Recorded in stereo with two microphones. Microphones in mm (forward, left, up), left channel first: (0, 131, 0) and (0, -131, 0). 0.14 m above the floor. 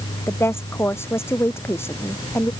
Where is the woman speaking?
10° left (ahead or behind).